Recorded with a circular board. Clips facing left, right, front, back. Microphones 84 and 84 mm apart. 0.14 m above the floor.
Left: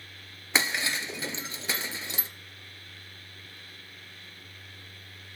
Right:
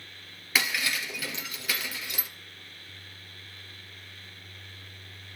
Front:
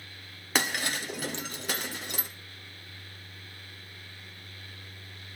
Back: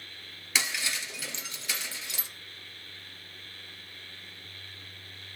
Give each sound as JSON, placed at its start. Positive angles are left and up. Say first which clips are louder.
{"t": 0.6, "sound": "breaking glass", "louder": "left 1 dB, front 4 dB", "azimuth_deg": 30, "distance_m": 1.5}